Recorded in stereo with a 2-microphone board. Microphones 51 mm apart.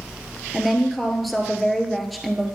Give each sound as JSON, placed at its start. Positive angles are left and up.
{"t": 0.5, "sound": "a woman speaking", "side_deg": 0, "distance_m": 1.6}